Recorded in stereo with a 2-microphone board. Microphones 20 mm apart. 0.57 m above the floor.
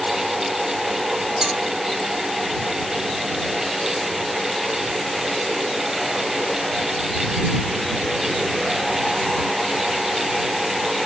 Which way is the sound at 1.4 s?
35° right (ahead or behind).